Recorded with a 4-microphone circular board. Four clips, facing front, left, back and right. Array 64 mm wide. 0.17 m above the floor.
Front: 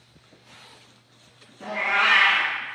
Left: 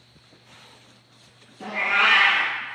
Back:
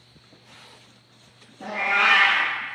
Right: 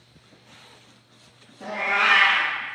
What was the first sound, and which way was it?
A cat meowing, 85° left.